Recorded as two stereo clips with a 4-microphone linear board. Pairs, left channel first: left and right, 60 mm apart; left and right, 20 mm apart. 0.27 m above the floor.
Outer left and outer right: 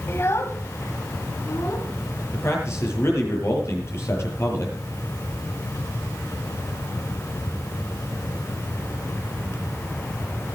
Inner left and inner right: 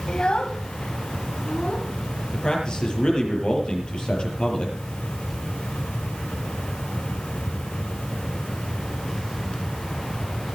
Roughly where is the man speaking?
Left.